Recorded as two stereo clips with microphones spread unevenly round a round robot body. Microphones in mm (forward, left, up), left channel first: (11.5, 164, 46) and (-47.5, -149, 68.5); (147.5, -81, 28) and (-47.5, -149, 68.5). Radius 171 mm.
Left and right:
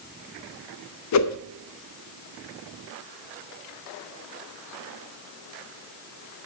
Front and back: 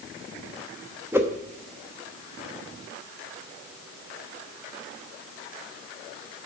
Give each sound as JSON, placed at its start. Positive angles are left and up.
{"t": 1.1, "sound": "a whoosh", "azimuth_deg": 115, "distance_m": 0.8}